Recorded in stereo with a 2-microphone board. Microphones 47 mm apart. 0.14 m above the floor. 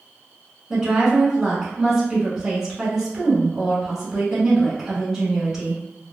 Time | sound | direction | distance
0.7 | a woman speaking | 10° right (ahead or behind) | 1.1 m